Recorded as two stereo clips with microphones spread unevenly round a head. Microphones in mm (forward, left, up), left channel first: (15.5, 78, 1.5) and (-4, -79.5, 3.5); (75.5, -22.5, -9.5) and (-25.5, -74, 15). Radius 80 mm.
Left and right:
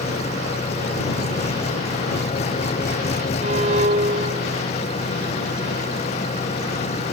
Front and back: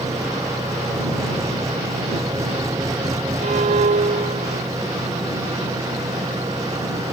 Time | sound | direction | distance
0.0 | an engine running | 135° left | ?
3.4 | a violin | 145° right | ?